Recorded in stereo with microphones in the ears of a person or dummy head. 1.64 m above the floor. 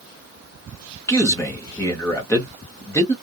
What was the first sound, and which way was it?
A man speaking, 10° left (ahead or behind).